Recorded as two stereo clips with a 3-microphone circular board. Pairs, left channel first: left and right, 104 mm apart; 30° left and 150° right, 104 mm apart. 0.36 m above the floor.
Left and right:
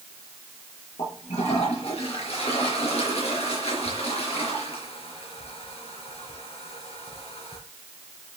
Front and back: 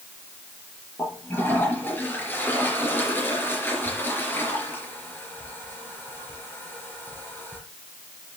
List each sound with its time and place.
1.0 s a toilet flushing: 100° left, 4.5 m